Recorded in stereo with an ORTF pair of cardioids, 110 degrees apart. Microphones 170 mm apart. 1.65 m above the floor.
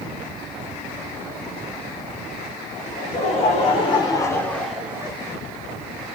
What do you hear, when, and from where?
2.9 s laughter: 50° left, 1.5 m; by 5.2 s 20° right, 0.8 m